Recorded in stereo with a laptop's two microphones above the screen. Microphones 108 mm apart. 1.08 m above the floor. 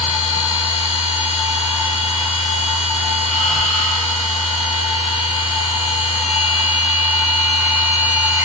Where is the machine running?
5° right (ahead or behind), 3 m.